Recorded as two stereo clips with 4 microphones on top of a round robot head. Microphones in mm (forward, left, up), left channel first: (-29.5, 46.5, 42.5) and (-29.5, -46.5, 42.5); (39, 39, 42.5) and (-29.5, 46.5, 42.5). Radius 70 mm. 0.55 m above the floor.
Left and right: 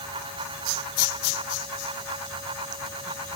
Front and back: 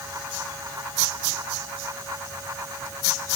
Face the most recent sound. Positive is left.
No sound to turn to.